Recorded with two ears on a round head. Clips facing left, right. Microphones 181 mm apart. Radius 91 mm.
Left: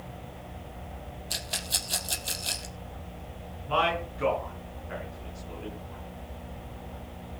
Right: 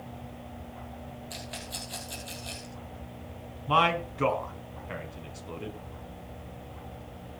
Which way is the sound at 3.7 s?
70° right (ahead or behind).